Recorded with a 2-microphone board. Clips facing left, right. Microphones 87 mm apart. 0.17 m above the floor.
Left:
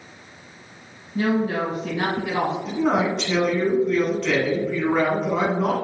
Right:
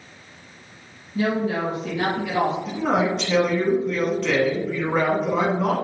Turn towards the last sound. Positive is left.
turn(degrees=0)  # may be behind; listen again after turning